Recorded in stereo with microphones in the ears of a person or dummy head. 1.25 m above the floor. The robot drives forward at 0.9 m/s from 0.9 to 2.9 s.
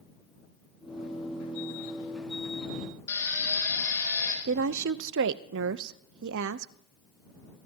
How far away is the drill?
About 4.5 m.